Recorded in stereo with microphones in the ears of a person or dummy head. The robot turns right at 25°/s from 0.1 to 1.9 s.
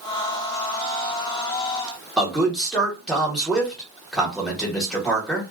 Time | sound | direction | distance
2.2 | a man speaking | 5° left (ahead or behind) | 1.1 m